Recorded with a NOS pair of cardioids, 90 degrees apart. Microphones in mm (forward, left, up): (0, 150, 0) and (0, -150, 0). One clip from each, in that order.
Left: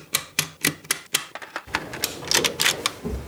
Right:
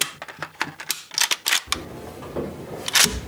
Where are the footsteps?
5° left, 8 m; by 3.3 s 5° right, 9 m.